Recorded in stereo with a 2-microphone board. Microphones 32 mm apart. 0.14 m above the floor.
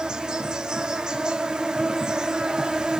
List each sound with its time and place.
0.0 s an insect: 25° right (ahead or behind), 0.8 m